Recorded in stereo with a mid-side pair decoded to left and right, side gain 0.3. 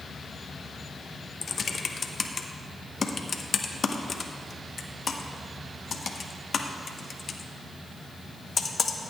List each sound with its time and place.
1.4 s typing on a keyboard: 55° left, 1.0 m